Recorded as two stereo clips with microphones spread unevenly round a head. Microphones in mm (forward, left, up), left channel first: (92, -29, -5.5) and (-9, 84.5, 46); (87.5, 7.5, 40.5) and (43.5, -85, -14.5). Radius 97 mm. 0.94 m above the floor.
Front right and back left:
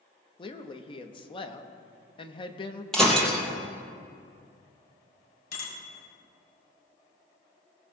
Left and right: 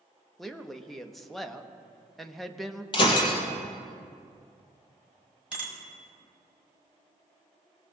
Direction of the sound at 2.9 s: 45° left.